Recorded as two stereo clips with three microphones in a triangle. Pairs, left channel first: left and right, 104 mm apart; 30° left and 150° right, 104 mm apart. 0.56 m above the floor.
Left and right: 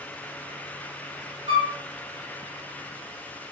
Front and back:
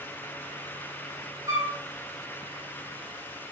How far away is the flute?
About 1.5 m.